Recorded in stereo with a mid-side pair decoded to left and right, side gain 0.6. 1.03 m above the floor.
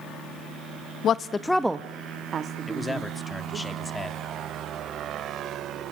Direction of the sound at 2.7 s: 10° left.